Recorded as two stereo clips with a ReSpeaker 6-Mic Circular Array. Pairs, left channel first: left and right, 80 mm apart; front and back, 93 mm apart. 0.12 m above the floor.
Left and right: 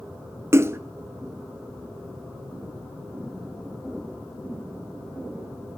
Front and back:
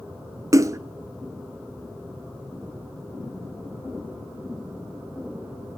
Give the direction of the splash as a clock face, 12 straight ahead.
5 o'clock.